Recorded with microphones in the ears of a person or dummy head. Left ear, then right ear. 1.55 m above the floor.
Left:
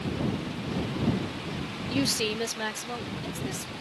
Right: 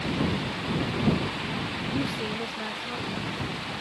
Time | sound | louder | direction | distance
1.9 | a woman speaking | left 7 dB | 40° left (ahead or behind) | ?